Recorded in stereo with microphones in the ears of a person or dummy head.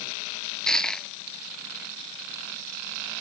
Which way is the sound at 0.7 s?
Centre (ahead or behind).